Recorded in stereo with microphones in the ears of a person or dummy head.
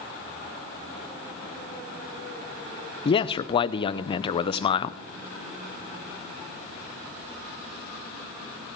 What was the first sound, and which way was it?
A man speaking, 25° left (ahead or behind).